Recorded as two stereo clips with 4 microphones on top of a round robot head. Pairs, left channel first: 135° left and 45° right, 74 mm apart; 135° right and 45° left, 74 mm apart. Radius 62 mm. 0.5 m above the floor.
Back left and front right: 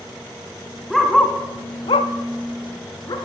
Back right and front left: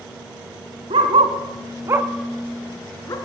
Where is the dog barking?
45° left, 1.9 m; by 3.1 s 175° left, 2 m.